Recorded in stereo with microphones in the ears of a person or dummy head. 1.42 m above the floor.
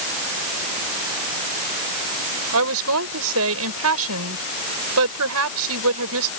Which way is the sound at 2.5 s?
70° right (ahead or behind).